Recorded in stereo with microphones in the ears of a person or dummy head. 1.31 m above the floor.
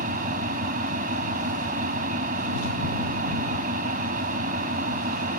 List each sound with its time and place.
0.0 s an engine running: 45° right (ahead or behind)